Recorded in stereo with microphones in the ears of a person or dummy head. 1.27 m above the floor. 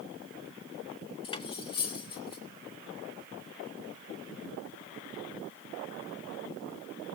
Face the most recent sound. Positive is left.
turn(degrees=30)  # may be behind; listen again after turning